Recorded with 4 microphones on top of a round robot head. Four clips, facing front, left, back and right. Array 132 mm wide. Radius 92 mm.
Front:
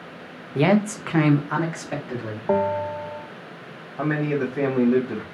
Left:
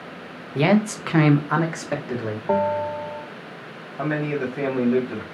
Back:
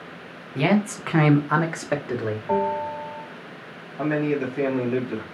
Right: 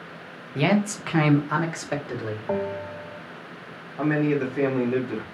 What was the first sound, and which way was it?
A man speaking, 35° left.